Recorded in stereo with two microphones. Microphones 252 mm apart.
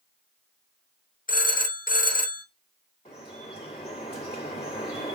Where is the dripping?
25° left (ahead or behind), 1.7 m.